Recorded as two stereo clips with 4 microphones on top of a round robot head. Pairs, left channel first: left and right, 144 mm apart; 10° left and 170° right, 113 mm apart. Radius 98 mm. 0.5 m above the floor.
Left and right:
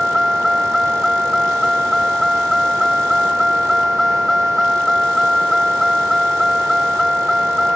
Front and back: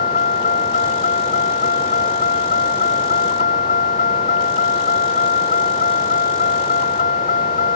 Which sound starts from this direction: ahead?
A vehicle, at 0.0 s.